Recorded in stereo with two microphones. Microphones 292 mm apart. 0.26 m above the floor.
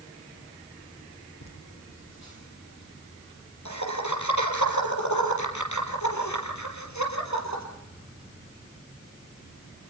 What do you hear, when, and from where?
1.4 s laughter: 65° left (ahead or behind), 7.5 m